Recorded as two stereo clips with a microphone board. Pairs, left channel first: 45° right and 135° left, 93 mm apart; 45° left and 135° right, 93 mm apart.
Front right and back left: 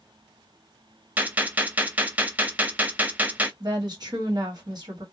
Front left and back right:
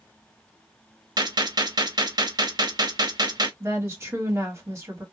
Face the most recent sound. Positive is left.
turn(degrees=165)